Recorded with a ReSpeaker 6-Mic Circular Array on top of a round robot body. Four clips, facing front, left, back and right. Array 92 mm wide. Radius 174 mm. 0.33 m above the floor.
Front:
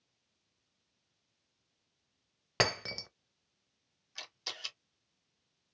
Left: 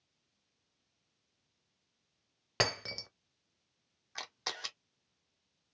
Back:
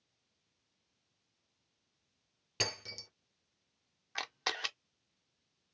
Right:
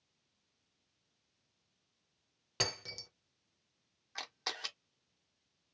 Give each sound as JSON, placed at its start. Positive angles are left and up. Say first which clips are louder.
{"t": 2.6, "sound": "breaking glass", "louder": "left 7 dB, front 9 dB", "azimuth_deg": 25, "distance_m": 0.7}
{"t": 4.2, "sound": "a camera shutter", "louder": "left 1 dB, back 10 dB", "azimuth_deg": 175, "distance_m": 1.0}